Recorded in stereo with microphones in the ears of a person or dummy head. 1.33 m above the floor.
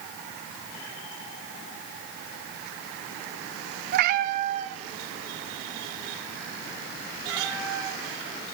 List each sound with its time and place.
3.9 s a cat meowing: 55° right (ahead or behind), 0.9 m; by 8.0 s 15° right (ahead or behind), 5 m